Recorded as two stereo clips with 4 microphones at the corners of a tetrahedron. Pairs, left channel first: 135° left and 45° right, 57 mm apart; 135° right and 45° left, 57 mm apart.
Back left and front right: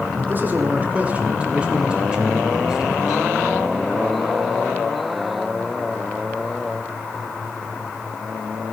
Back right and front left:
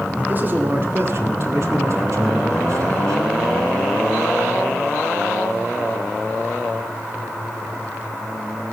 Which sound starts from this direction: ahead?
A man speaking, at 0.2 s.